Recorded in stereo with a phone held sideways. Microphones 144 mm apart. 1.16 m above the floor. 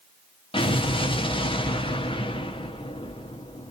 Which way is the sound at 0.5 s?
40° left (ahead or behind).